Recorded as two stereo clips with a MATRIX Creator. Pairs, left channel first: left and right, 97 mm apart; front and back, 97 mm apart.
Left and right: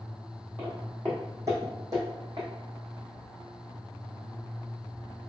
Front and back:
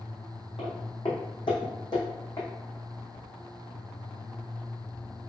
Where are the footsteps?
20° right, 1.6 m; by 2.5 s 45° right, 2.5 m.